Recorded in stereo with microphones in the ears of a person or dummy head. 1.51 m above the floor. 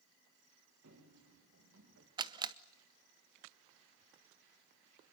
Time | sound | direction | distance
0.8 | running footsteps | 80° right | 9.5 m
2.2 | a camera shutter | 20° right (ahead or behind) | 0.8 m